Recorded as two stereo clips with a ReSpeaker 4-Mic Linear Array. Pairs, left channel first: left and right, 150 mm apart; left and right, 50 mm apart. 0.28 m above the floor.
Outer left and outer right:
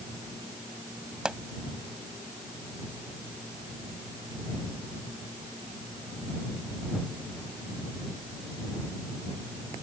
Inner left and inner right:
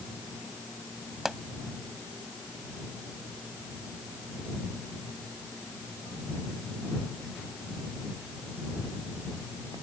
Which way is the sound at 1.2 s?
5° right (ahead or behind).